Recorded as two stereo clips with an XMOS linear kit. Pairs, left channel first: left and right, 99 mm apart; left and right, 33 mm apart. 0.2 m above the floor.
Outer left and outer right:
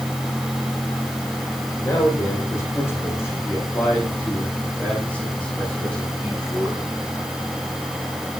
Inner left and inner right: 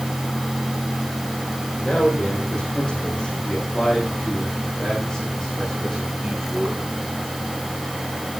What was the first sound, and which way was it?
A man speaking, 30° left (ahead or behind).